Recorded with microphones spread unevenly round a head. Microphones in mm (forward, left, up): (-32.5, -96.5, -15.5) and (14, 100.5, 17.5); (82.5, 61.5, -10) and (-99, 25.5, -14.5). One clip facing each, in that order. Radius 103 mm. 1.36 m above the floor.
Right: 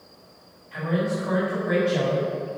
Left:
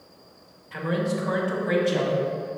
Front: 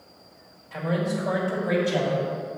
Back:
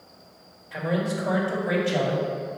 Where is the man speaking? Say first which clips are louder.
Right 1 dB, even; 110° left, 2 m; by 2.2 s 100° left, 3 m.